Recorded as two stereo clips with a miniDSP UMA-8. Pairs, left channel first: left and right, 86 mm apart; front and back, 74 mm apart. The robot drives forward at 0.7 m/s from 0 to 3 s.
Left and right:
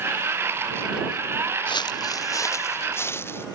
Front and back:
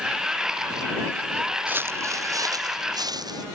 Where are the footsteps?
115° left; by 3.4 s 155° left.